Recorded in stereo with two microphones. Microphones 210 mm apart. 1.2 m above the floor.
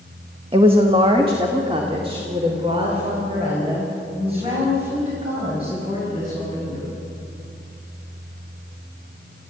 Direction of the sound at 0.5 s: 25° right (ahead or behind).